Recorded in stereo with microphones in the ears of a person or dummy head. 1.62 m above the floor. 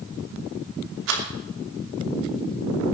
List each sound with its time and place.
1.1 s a rattle: 70° right (ahead or behind), 2.5 m